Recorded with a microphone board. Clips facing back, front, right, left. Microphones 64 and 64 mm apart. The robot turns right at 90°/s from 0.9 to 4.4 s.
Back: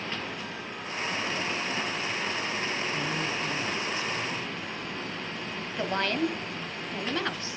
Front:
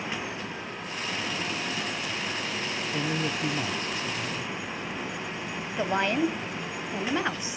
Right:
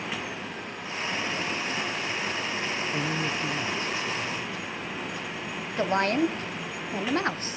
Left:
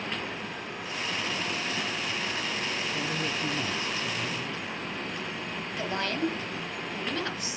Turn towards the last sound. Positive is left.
turn(degrees=-65)